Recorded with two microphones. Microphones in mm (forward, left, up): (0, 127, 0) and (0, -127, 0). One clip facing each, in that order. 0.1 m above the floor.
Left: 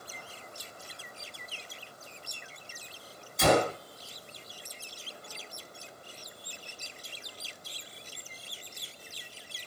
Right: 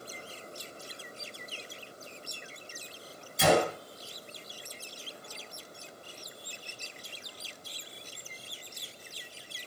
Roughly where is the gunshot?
Centre.